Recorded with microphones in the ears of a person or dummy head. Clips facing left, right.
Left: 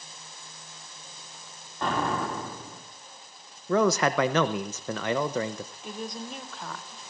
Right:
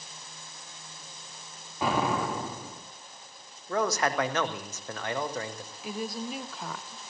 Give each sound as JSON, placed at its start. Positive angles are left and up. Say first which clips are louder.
{"t": 1.8, "sound": "an explosion", "louder": "right 1 dB", "side_deg": -5, "distance_m": 2.5}
{"t": 3.7, "sound": "a man speaking", "louder": "left 5 dB", "side_deg": 65, "distance_m": 0.8}
{"t": 5.8, "sound": "a woman speaking", "louder": "right 4 dB", "side_deg": -5, "distance_m": 0.6}